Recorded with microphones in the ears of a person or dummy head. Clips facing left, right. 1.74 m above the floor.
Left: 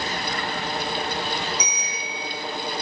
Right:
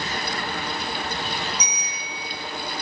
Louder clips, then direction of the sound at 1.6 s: Left 3 dB; 60° left (ahead or behind).